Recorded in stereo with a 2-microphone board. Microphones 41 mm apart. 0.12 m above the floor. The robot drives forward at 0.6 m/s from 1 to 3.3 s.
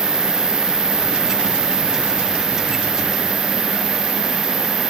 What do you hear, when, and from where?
0.0 s an insect: 75° left (ahead or behind), 1.1 m; by 4.9 s 40° left (ahead or behind), 1.7 m